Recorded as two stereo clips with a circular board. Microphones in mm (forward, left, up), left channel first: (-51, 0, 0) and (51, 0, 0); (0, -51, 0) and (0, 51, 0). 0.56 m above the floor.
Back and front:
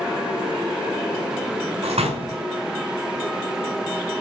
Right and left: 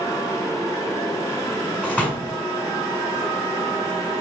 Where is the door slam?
10° right, 4 m.